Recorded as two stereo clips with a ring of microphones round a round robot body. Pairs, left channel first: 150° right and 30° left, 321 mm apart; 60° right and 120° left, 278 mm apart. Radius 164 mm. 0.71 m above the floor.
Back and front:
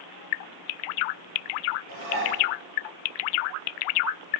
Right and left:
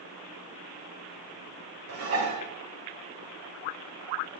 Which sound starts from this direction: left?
Dishes clattering, at 1.9 s.